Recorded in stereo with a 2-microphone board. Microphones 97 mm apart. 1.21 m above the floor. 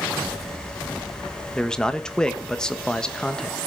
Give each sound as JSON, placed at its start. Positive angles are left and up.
{"t": 1.6, "sound": "a man speaking", "side_deg": 10, "distance_m": 1.2}